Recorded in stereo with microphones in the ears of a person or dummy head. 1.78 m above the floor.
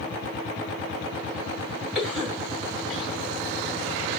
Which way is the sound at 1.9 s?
Centre (ahead or behind).